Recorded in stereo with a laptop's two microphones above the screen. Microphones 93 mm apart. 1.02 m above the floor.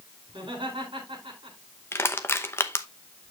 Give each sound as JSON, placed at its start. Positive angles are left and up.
{"t": 0.3, "sound": "laughter", "side_deg": -65, "distance_m": 4.0}
{"t": 1.9, "sound": "crushing", "side_deg": 25, "distance_m": 0.8}